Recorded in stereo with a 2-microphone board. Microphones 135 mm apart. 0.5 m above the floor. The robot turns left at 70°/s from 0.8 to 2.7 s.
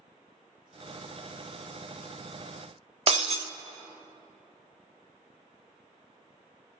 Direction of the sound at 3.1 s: 50° right (ahead or behind).